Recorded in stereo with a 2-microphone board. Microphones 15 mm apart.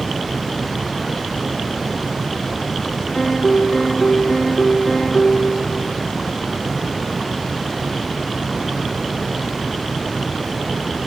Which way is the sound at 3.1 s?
60° left (ahead or behind).